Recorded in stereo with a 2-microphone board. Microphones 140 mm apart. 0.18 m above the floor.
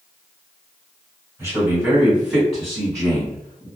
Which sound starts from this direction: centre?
A man speaking, at 1.4 s.